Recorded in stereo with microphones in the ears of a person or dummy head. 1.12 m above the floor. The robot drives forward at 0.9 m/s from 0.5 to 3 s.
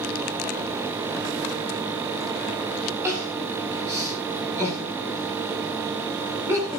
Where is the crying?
15° right (ahead or behind), 9 m.